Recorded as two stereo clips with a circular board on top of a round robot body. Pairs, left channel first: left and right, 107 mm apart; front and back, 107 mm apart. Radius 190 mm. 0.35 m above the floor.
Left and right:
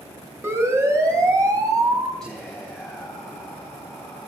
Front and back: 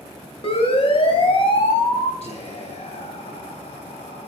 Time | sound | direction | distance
0.4 | a siren | 25° right | 4 m
2.2 | whispering | 5° left | 3.5 m